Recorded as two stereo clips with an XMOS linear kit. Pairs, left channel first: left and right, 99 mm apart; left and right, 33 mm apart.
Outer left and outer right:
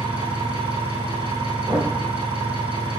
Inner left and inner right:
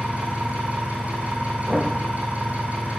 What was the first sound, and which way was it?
An engine running, 65° right (ahead or behind).